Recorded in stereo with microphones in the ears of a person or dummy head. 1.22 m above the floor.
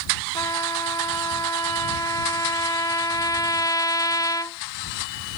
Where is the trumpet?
15° left (ahead or behind).